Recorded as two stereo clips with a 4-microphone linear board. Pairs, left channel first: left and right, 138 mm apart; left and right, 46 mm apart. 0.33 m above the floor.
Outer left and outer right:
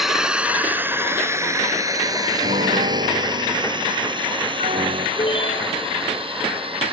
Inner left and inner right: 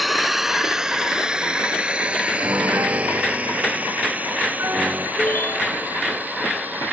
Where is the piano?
70° right (ahead or behind).